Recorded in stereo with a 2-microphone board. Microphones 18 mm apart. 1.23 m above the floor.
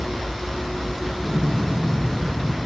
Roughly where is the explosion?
Left.